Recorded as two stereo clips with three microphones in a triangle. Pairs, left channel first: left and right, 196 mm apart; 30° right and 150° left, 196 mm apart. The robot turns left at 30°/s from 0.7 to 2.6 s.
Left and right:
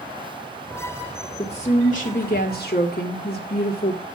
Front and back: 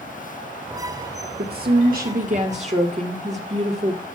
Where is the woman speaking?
140° left, 1.9 m; by 4.0 s 105° left, 1.9 m.